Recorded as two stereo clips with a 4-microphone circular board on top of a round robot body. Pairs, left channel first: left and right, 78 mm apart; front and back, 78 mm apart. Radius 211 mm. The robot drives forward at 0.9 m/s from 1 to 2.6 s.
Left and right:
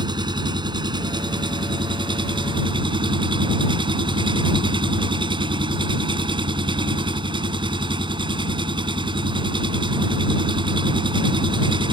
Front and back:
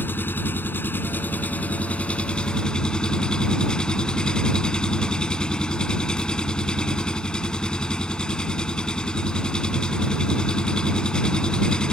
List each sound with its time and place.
0.0 s an engine running: 65° right; by 11.9 s 80° right